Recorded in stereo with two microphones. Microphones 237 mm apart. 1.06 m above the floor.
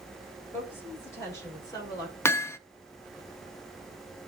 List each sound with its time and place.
0.5 s a woman speaking: 10° left (ahead or behind), 6 m; by 2.1 s 15° left (ahead or behind), 5 m
2.2 s hammering: 10° left (ahead or behind), 0.5 m